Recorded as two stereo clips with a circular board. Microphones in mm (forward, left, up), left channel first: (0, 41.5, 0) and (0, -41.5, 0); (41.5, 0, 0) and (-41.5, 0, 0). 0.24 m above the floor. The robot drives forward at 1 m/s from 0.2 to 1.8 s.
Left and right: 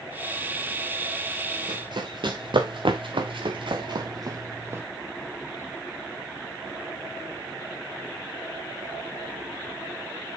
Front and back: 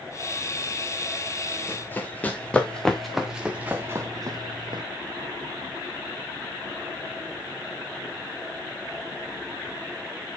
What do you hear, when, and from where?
1.7 s running footsteps: 60° right, 4 m; by 4.8 s 150° right, 2.5 m